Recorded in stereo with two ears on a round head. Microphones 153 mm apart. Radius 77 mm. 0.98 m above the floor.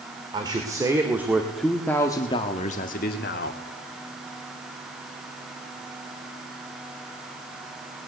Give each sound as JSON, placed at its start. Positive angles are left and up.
{"t": 0.3, "sound": "a man speaking", "side_deg": -30, "distance_m": 3.0}